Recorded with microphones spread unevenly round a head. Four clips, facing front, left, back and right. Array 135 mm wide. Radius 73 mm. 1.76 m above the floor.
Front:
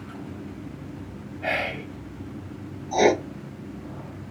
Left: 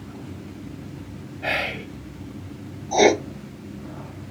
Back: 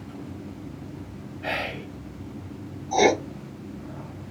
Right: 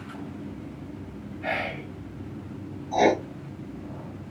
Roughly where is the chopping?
No chopping in this recording.